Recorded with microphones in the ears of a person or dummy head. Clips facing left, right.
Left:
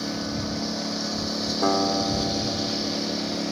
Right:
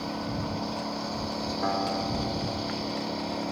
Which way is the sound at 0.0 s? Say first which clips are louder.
Left 3 dB; 20° left (ahead or behind).